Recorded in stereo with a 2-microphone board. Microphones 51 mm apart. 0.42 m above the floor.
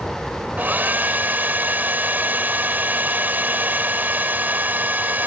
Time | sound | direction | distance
0.6 | a hair dryer | 40° right (ahead or behind) | ?